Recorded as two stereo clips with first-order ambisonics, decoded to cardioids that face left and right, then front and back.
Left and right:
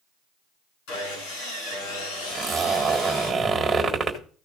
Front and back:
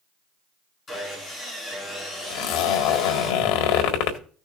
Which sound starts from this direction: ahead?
A zipper, at 2.3 s.